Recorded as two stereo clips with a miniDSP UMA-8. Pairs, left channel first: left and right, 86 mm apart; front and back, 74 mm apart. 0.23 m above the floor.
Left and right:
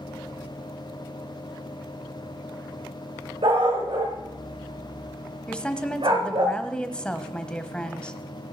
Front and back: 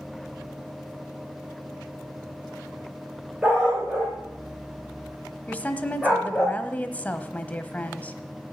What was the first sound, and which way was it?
A dog barking, 105° right.